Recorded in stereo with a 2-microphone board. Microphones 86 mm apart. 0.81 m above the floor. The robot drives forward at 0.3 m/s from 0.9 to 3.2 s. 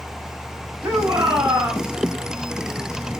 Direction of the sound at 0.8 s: 25° right (ahead or behind).